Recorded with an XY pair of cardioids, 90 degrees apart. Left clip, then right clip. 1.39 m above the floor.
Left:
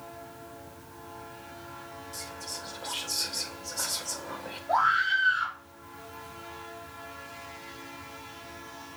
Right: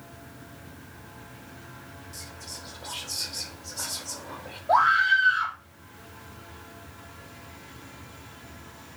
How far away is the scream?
About 3.5 m.